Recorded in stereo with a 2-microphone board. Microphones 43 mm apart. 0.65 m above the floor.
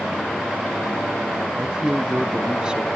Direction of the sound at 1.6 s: 20° right (ahead or behind).